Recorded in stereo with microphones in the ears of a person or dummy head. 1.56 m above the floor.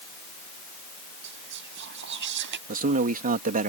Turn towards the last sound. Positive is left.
turn(degrees=-35)  # may be behind; listen again after turning